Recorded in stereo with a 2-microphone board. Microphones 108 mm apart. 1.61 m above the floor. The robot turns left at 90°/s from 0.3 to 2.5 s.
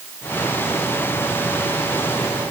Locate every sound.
Only background noise.